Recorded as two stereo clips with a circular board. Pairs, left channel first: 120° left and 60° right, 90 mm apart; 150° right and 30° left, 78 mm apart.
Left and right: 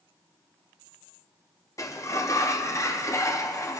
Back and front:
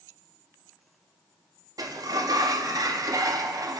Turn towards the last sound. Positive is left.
turn(degrees=65)